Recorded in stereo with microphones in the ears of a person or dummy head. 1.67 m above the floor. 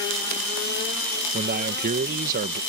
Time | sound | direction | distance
1.3 | a man speaking | 45° right (ahead or behind) | ?